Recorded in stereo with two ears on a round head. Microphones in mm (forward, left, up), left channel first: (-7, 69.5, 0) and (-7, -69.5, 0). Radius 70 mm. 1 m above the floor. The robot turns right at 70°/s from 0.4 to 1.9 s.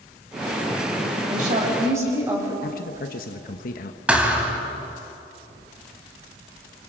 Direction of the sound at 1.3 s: 65° right.